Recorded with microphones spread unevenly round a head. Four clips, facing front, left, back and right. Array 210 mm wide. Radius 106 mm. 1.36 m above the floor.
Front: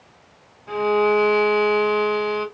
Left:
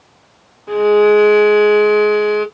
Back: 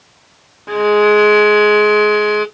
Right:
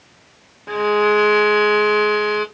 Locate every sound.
0.7 s a violin: 140° right, 1.4 m